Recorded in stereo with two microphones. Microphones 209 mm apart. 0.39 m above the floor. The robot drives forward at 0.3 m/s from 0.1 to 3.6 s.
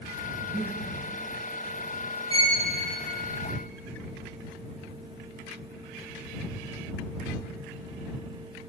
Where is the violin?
20° left (ahead or behind), 1.7 m; by 2.6 s 15° left (ahead or behind), 1.8 m.